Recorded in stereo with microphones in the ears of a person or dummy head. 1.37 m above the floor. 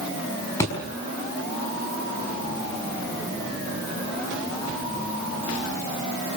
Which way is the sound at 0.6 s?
20° left (ahead or behind).